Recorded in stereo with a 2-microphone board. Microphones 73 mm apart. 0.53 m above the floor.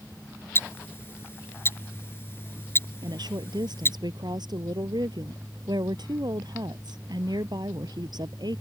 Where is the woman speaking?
75° right (ahead or behind).